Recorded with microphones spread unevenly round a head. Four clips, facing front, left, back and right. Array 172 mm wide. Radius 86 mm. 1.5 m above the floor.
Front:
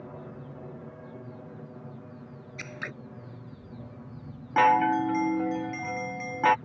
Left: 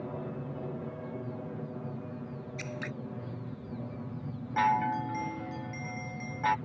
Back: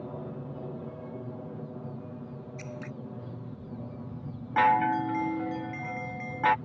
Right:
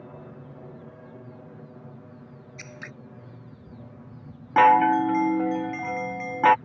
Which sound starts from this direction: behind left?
An aircraft, at 0.0 s.